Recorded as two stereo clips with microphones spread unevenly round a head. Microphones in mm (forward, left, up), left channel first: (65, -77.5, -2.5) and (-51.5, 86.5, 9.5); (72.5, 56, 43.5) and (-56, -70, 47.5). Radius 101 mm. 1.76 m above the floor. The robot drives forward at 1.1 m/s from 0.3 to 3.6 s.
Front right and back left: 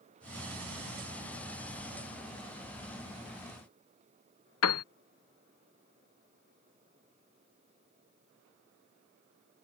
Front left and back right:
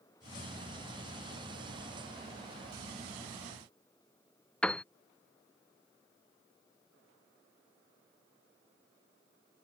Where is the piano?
40° right.